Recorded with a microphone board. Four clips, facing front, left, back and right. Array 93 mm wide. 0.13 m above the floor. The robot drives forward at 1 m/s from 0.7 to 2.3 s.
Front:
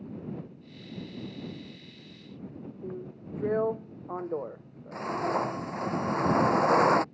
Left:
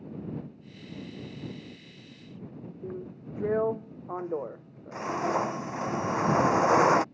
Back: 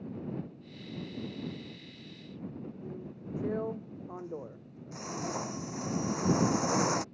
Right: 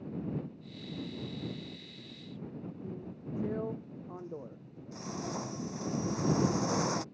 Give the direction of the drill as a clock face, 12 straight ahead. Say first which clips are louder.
Left 4 dB, front 3 dB; 10 o'clock.